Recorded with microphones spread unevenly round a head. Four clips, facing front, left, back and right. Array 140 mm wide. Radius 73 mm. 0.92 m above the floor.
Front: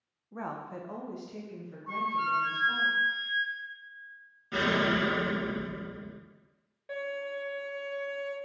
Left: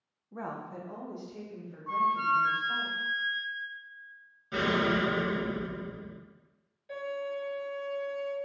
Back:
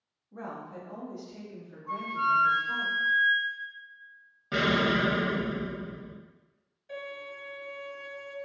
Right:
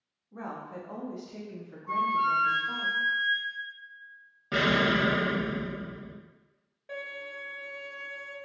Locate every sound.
0.3 s a woman speaking: 40° left, 0.5 m; by 2.9 s 70° right, 1.2 m
1.9 s a flute: 60° left, 1.6 m
4.5 s an explosion: 120° right, 0.6 m
6.9 s a violin: 35° right, 1.4 m